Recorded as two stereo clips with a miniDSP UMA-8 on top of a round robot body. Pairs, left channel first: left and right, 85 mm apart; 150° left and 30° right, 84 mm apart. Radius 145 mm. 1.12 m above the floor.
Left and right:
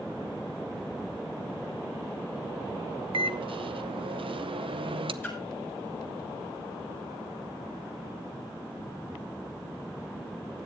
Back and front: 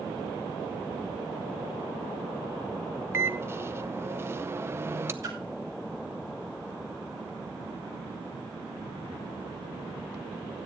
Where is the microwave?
90° right, 0.7 m.